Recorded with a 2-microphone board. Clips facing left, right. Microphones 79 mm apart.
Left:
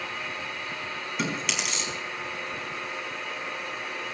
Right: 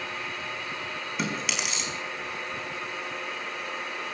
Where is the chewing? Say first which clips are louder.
Left 1 dB; centre (ahead or behind), 4.5 m.